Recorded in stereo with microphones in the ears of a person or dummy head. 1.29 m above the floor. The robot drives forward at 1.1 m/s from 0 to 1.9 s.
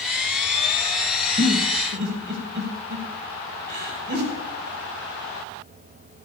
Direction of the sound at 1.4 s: 50° right (ahead or behind).